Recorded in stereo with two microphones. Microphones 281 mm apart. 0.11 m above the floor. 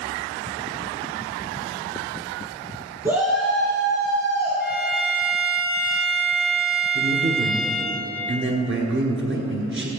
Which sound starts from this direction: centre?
A shout, at 3.0 s.